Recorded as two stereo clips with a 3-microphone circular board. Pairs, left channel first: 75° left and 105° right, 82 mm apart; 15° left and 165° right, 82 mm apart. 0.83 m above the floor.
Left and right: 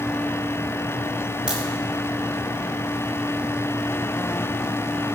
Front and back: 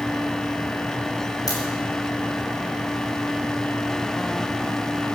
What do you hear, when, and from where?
1.5 s a crack: 25° right, 4 m